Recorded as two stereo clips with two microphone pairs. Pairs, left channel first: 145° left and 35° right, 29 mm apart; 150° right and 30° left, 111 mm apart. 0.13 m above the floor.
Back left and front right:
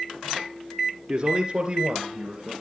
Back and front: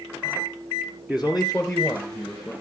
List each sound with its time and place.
1.1 s a man speaking: 50° right, 1.9 m; by 2.5 s 75° right, 2.5 m